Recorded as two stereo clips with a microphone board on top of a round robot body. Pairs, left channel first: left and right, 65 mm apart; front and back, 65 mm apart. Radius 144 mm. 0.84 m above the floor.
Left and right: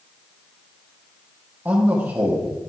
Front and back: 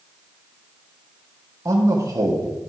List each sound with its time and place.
1.6 s a man speaking: 145° right, 2 m